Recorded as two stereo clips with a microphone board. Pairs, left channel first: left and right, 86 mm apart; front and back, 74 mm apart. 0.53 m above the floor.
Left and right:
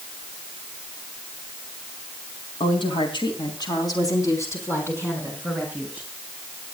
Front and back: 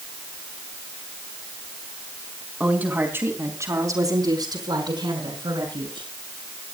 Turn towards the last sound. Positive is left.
turn(degrees=170)